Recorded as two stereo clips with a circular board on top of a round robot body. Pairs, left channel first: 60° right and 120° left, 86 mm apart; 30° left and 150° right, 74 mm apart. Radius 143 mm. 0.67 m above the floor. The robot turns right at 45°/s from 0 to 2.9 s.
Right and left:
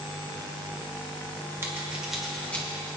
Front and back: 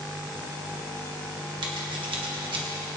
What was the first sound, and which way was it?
Scissors, 175° right.